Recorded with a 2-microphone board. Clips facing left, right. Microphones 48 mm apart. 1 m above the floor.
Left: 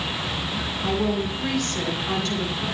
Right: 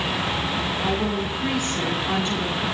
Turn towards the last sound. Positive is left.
turn(degrees=-15)  # may be behind; listen again after turning